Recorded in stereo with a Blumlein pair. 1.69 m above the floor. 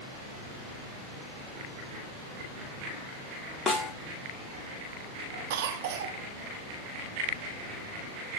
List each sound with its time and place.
3.7 s a snare drum: 10° left, 3 m
5.5 s a cough: 50° right, 1.9 m